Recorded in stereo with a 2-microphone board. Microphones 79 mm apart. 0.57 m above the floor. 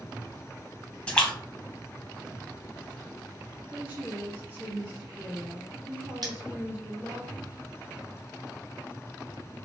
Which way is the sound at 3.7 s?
25° right (ahead or behind).